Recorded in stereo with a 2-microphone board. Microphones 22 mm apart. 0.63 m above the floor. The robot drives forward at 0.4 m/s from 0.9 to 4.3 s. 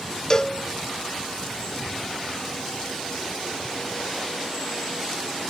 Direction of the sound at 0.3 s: 25° left (ahead or behind).